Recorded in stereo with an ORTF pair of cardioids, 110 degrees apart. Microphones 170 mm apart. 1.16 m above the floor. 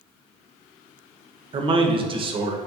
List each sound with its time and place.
1.5 s a man speaking: 30° right, 0.6 m